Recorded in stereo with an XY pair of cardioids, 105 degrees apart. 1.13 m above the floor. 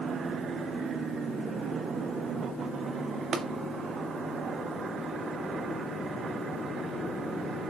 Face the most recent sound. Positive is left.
turn(degrees=-50)